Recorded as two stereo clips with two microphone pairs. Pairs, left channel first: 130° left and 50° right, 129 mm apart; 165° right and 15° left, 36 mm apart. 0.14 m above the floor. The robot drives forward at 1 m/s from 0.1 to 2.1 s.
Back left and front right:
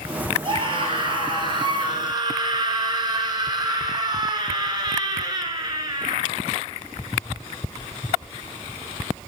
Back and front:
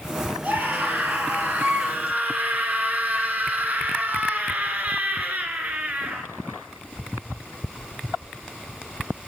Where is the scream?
Straight ahead, 4 m.